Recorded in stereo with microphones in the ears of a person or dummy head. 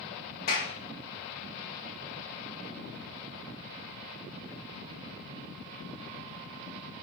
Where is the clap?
45° left (ahead or behind), 2.0 m.